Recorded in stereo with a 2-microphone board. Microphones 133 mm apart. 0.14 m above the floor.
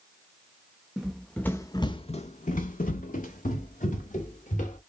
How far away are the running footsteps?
About 0.8 m.